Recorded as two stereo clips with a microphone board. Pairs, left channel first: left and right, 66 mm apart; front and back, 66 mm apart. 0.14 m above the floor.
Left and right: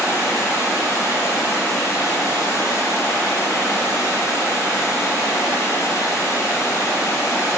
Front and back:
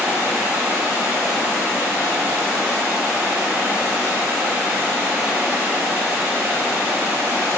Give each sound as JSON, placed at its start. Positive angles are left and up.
{"t": 0.0, "sound": "running water", "azimuth_deg": 120, "distance_m": 0.7}